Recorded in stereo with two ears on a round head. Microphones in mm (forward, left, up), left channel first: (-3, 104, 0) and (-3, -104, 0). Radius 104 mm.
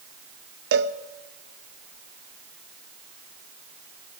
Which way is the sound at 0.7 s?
45° right (ahead or behind).